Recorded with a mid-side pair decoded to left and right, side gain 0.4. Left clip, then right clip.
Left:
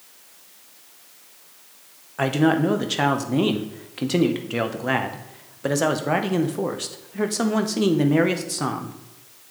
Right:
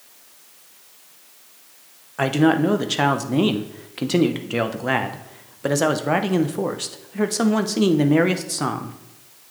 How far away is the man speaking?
About 0.7 m.